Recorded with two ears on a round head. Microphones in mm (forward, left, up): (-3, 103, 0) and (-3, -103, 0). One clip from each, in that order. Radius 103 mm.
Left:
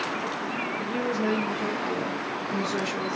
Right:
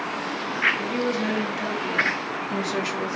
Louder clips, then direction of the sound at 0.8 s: Right 2 dB; 60° right (ahead or behind).